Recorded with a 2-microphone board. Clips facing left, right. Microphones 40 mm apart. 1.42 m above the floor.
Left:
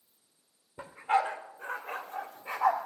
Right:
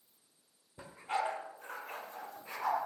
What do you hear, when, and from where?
0.8 s a dog barking: 35° left (ahead or behind), 1.3 m; by 2.9 s 55° left (ahead or behind), 2.0 m